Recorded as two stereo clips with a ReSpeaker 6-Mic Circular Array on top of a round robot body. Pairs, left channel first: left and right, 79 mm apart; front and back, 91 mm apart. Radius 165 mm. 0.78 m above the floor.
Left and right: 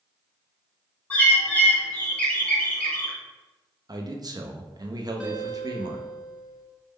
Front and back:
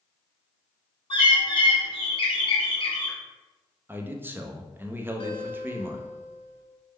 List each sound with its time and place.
1.1 s a bird: 15° left, 1.3 m
3.9 s a man speaking: 115° right, 0.7 m
5.2 s a guitar: 15° right, 1.0 m